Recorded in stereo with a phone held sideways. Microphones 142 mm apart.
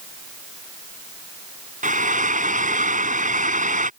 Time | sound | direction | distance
1.8 | frying | 65° right (ahead or behind) | ?